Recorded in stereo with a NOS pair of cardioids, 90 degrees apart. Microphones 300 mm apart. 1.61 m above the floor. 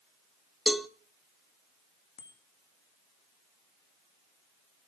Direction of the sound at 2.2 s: 70° left.